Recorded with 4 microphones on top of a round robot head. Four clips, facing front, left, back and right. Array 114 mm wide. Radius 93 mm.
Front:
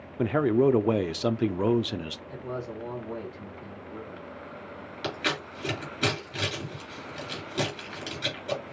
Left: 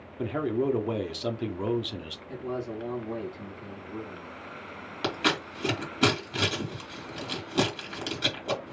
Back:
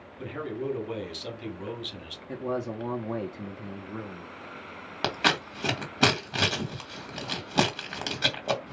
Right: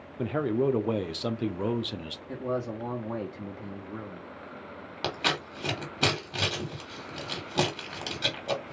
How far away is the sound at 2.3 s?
About 1.3 m.